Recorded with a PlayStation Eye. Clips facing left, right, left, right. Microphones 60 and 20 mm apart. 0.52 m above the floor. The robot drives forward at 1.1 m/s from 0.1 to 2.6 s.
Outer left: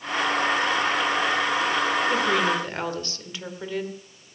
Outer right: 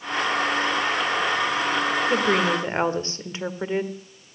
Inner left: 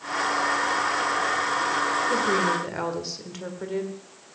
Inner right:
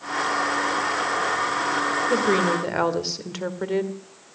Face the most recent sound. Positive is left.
turn(degrees=-30)  # may be behind; listen again after turning